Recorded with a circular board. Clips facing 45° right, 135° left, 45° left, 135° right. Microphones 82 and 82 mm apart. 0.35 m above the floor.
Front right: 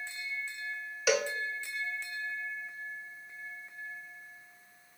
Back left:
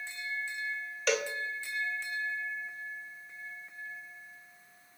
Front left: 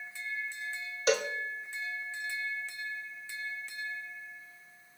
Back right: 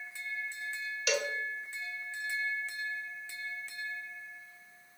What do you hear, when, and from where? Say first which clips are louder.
1.1 s a cowbell: front right 2 dB, front left 5 dB; 35° left, 1.1 m